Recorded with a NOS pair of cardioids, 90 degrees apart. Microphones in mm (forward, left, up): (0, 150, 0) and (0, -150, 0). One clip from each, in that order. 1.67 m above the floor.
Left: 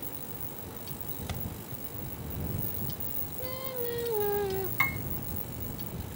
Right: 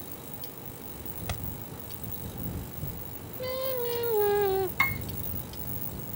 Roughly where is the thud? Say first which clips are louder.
Right 4 dB; ahead right.